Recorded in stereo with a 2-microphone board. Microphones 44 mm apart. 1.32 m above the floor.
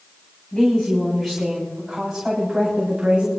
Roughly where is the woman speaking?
Centre.